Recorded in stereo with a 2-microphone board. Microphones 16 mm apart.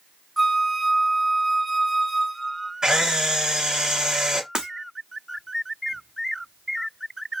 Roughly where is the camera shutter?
Right.